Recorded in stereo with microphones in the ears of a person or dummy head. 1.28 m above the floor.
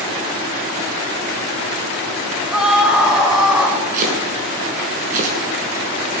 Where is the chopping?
45° right (ahead or behind), 6 m.